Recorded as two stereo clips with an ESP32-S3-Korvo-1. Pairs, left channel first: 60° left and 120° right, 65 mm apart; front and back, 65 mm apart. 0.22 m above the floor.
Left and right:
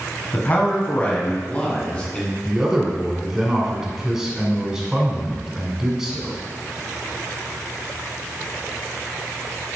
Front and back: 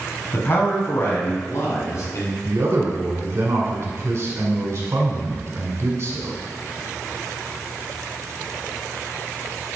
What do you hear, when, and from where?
0.3 s a man speaking: 25° left, 1.6 m; by 2.4 s 10° right, 2.5 m
2.5 s a man speaking: 160° left, 1.7 m